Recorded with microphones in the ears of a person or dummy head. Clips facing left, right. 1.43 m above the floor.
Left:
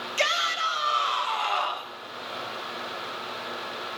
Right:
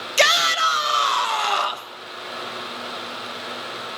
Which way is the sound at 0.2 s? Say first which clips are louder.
Right 8 dB; 70° right (ahead or behind).